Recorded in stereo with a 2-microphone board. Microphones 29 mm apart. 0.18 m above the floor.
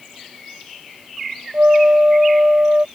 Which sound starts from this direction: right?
A flute, at 1.5 s.